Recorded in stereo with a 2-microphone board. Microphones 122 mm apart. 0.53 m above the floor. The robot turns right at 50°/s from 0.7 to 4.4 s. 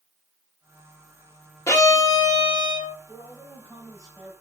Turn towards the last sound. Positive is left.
turn(degrees=-165)